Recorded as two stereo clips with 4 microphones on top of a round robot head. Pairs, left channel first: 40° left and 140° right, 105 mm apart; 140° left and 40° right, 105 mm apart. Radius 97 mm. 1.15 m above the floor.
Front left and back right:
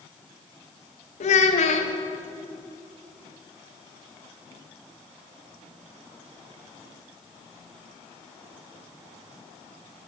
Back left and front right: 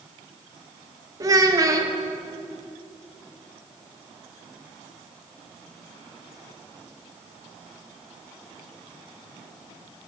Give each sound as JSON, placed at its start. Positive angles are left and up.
{"t": 1.2, "sound": "a child speaking", "azimuth_deg": 20, "distance_m": 0.8}